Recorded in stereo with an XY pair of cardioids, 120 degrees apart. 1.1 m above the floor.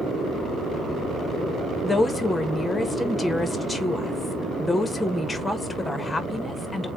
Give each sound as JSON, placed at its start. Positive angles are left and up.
{"t": 1.8, "sound": "a woman speaking", "azimuth_deg": 15, "distance_m": 0.9}